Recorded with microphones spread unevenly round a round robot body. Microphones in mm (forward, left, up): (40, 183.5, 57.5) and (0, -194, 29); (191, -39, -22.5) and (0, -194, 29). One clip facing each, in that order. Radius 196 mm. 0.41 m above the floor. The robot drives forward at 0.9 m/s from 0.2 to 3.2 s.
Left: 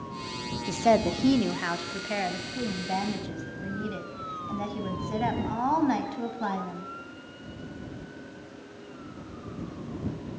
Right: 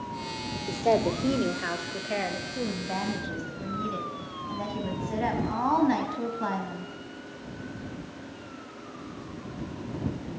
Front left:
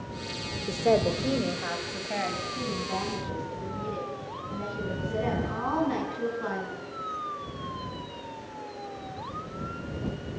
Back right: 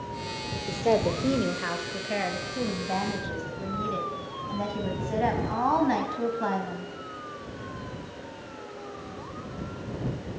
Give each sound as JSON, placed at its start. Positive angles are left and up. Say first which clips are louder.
{"t": 0.7, "sound": "a woman speaking", "louder": "even, even", "azimuth_deg": 85, "distance_m": 0.9}